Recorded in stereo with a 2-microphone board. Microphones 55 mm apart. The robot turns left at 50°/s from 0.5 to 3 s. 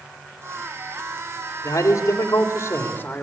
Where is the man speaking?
105° left, 3.5 m; by 3.2 s 35° left, 3.5 m.